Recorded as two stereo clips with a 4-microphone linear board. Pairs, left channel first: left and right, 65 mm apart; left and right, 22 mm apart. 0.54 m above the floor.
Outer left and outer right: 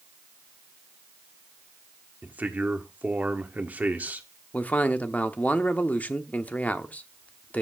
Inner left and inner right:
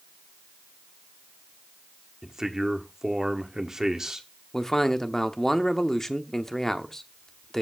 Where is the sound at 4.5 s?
25° left (ahead or behind), 0.9 m.